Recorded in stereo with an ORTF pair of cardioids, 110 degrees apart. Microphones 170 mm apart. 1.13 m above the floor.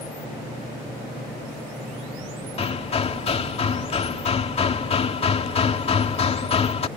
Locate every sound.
2.6 s hammering: 35° left